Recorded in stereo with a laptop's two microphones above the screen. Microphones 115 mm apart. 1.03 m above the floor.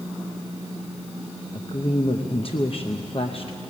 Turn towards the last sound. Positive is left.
turn(degrees=55)  # may be behind; listen again after turning